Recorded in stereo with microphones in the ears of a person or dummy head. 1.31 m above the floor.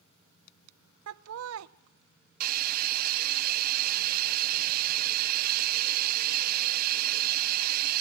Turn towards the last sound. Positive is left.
turn(degrees=-50)  # may be behind; listen again after turning